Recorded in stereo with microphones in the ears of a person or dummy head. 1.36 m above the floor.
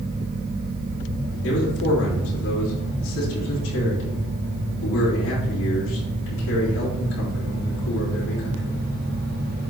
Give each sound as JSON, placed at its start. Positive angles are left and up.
{"t": 1.4, "sound": "a man speaking", "side_deg": 60, "distance_m": 3.5}